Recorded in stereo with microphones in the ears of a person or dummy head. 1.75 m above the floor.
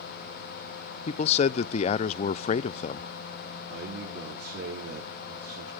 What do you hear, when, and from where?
1.1 s a man speaking: 40° left (ahead or behind), 0.6 m
3.7 s a man speaking: 70° right (ahead or behind), 5.5 m